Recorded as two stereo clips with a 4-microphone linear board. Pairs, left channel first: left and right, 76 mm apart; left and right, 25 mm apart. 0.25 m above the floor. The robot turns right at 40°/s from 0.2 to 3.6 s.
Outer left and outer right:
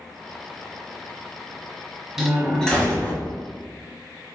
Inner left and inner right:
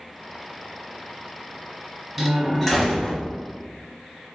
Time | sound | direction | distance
2.2 | a door slam | 5° right | 1.2 m